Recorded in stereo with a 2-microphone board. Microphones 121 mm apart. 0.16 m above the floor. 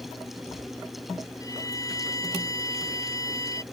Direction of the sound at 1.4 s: 30° left (ahead or behind).